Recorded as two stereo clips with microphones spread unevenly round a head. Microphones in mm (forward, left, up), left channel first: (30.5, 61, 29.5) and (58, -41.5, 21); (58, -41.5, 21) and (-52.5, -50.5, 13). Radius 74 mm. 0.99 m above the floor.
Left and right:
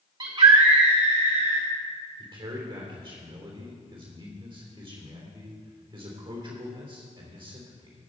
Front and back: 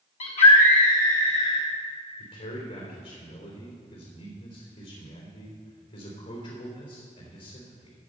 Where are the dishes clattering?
I don't hear dishes clattering.